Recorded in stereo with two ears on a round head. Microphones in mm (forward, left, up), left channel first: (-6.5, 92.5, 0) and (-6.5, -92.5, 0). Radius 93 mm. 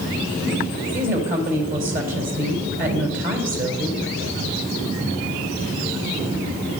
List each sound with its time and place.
0.9 s a woman speaking: 40° right (ahead or behind), 3.5 m